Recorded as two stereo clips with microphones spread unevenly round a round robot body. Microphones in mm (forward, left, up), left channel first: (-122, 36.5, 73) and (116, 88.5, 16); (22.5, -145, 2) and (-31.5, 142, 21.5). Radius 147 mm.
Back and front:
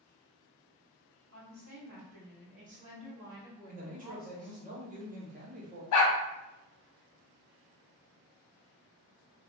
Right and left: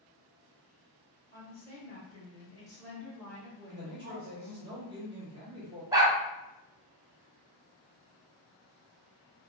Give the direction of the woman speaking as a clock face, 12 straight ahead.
1 o'clock.